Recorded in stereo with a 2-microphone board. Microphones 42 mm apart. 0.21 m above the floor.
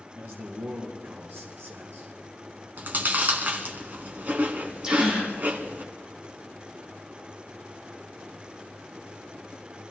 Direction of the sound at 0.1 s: 50° right (ahead or behind).